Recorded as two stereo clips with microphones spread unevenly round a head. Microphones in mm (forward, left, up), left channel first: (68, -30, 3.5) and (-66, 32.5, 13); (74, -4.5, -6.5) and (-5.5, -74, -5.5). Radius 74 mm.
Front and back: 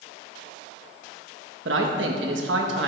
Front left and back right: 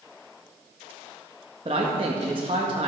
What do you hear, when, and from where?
1.6 s a man speaking: 160° left, 1.9 m